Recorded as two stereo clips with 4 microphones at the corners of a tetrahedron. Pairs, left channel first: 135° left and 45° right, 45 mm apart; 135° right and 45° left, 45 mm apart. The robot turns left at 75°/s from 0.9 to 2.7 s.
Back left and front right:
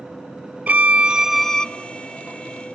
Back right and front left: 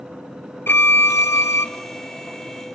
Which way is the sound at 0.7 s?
95° right.